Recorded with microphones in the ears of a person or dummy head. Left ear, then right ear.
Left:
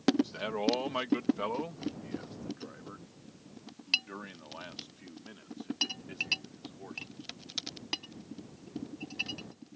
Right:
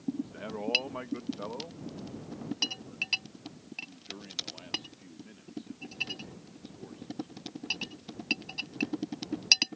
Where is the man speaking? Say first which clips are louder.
Left 5 dB; 85° left; by 7.3 s 40° left (ahead or behind).